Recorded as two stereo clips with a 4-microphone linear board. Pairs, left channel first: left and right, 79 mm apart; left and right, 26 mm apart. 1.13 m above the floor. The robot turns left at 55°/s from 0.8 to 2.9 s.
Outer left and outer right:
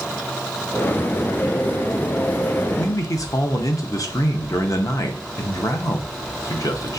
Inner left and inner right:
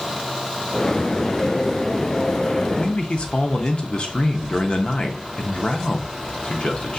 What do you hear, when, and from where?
2.8 s a man speaking: 50° left (ahead or behind), 0.7 m; by 7.0 s 45° left (ahead or behind), 0.7 m